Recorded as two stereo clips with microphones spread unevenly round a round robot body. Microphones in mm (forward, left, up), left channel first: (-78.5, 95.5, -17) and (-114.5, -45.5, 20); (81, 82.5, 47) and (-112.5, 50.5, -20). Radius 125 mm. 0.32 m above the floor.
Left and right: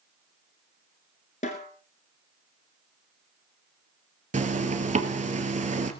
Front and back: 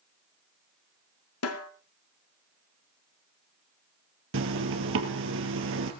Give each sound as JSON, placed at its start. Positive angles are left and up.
{"t": 1.4, "sound": "a snare drum", "azimuth_deg": 15, "distance_m": 1.8}
{"t": 4.3, "sound": "a zipper", "azimuth_deg": -145, "distance_m": 2.5}